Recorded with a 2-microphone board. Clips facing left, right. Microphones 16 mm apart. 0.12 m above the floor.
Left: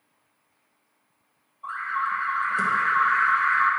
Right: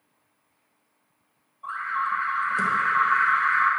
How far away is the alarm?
About 1.8 m.